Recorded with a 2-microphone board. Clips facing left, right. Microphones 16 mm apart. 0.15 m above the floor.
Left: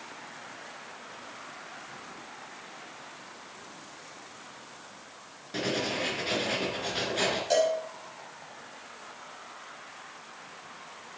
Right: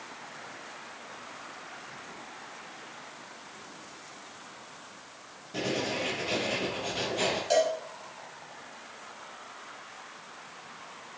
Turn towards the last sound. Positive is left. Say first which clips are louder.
# even
turn(degrees=5)  # may be behind; listen again after turning